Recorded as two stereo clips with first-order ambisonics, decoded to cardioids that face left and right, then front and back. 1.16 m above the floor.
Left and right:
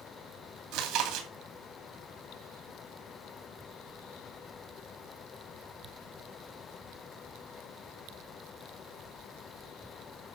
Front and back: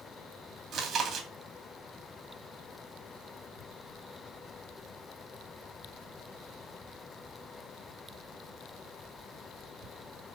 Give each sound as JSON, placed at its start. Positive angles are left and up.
{"t": 0.7, "sound": "chewing", "azimuth_deg": -115, "distance_m": 2.5}